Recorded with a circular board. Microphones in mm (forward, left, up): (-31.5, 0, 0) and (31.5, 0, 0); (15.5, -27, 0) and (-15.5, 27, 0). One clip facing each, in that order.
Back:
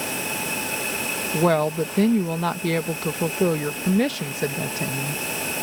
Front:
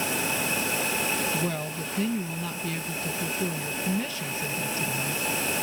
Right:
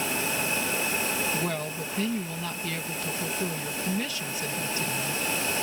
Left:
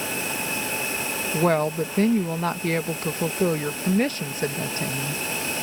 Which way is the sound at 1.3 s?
165° left.